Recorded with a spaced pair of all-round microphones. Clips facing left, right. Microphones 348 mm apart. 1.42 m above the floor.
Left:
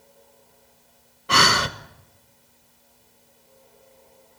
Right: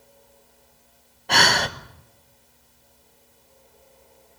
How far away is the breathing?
About 1.1 m.